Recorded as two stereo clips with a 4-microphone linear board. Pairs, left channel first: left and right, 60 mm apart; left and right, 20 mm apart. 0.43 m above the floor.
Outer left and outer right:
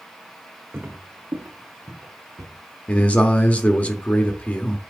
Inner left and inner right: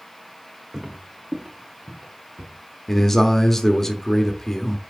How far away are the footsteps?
About 1.5 m.